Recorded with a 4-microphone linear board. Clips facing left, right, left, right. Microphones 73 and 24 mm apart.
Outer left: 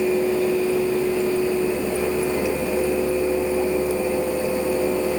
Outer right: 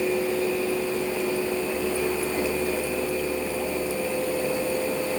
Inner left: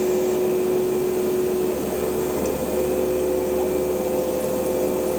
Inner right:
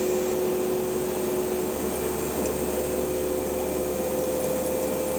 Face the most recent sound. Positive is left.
No sound to turn to.